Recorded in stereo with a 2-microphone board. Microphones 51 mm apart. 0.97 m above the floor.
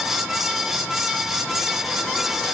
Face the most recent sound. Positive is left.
No sound to turn to.